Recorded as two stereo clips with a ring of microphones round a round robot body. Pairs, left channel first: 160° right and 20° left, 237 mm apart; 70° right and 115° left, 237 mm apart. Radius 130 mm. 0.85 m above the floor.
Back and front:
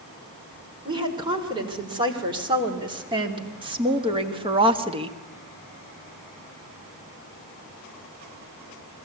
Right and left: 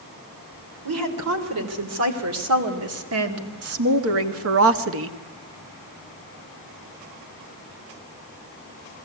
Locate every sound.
0.8 s a woman speaking: 95° left, 3.5 m; by 5.2 s 90° left, 1.0 m